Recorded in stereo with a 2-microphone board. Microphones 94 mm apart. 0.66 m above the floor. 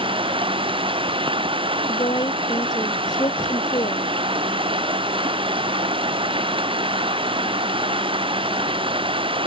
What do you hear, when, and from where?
0.0 s running water: 70° right (ahead or behind)
1.9 s a woman speaking: 50° left (ahead or behind)